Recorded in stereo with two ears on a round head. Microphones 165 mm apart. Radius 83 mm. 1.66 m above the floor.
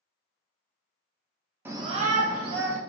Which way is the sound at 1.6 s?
10° right (ahead or behind).